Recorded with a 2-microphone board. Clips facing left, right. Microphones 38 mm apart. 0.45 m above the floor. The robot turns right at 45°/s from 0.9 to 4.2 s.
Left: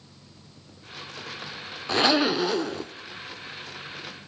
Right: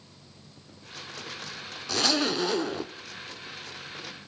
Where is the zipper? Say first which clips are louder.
Left 5 dB; 145° left, 0.8 m; by 2.9 s 165° right, 0.8 m.